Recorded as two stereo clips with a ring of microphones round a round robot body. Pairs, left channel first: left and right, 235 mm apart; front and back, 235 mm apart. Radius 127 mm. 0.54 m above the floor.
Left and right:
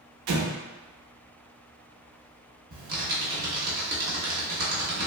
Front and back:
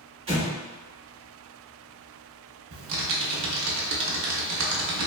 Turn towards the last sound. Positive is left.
turn(degrees=-145)